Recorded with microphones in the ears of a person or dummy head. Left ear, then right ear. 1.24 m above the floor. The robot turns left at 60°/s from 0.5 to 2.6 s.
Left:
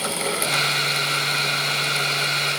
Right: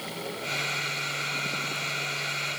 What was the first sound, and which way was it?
Only background noise.